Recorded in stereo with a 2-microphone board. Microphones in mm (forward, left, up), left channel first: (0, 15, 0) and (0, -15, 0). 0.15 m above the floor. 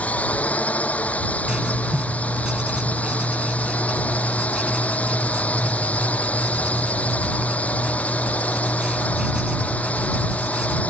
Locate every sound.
0.0 s a drone: 55° left (ahead or behind)
1.5 s writing: 30° right (ahead or behind)